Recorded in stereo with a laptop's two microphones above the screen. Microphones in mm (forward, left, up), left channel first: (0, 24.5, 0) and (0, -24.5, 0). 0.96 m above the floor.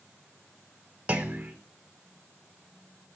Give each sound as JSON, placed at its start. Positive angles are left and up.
{"t": 1.1, "sound": "a clunk", "side_deg": -25, "distance_m": 1.2}